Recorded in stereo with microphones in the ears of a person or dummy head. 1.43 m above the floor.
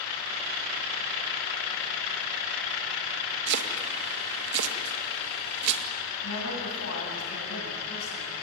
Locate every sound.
3.5 s chopping: 60° right (ahead or behind), 2 m
6.2 s a woman speaking: 85° left, 9 m